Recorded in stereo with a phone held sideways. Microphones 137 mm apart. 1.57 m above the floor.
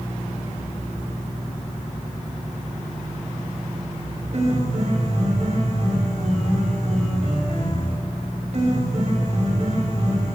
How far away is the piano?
About 5.5 m.